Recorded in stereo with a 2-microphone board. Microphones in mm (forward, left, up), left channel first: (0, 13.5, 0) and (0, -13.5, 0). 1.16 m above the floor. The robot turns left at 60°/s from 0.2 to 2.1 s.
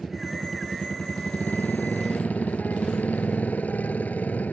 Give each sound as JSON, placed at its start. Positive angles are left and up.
{"t": 0.0, "sound": "a motorcycle", "azimuth_deg": 180}